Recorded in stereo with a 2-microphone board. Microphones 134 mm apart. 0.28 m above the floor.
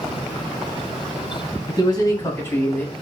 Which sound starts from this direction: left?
A man speaking, at 1.7 s.